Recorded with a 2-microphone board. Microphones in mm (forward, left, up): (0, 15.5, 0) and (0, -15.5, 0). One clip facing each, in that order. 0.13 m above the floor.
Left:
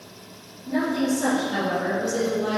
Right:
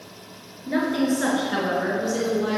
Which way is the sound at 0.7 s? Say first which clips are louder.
Right 1 dB; 50° right (ahead or behind).